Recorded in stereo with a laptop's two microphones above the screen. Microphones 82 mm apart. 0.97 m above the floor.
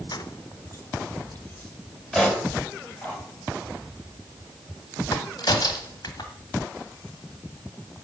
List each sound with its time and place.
0.1 s keys jangling: 60° left (ahead or behind), 0.6 m; by 3.1 s 15° left (ahead or behind), 4 m
2.1 s a pop: 10° left (ahead or behind), 4.5 m
5.1 s a crack: 55° left (ahead or behind), 1.7 m